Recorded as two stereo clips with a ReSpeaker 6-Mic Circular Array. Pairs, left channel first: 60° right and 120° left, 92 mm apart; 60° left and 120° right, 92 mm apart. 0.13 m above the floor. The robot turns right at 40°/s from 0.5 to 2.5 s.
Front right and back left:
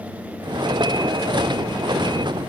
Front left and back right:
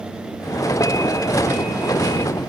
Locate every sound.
Only background noise.